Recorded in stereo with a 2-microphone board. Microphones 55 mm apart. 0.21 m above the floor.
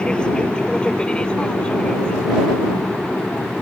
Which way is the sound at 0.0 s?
20° left (ahead or behind).